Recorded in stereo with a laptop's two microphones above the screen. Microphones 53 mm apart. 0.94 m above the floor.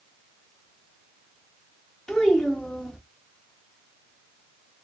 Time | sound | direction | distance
2.1 | a child speaking | 10° left (ahead or behind) | 0.8 m